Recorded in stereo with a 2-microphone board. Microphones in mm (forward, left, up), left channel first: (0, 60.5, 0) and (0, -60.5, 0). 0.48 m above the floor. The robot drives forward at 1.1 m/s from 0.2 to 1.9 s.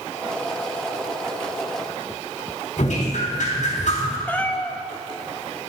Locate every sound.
2.8 s dripping: 75° left (ahead or behind), 3.5 m
4.3 s a cat meowing: 15° left (ahead or behind), 0.9 m